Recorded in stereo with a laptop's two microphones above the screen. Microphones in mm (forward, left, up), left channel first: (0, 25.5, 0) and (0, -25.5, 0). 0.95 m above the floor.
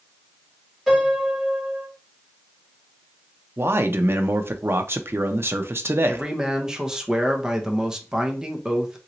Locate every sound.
0.9 s a piano: 5° right (ahead or behind), 1.9 m
3.6 s a man speaking: 50° right (ahead or behind), 0.5 m
6.1 s a man speaking: 10° right (ahead or behind), 0.6 m